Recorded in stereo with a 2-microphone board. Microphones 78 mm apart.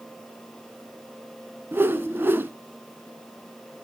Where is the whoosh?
30° right (ahead or behind), 0.6 m.